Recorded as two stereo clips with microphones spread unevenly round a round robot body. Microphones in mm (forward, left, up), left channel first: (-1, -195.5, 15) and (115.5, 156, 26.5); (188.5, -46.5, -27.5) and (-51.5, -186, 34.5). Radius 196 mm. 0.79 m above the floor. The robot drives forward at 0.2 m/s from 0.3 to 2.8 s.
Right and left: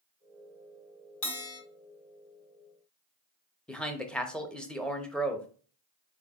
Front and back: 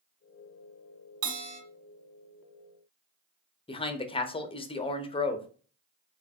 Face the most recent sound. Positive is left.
turn(degrees=-25)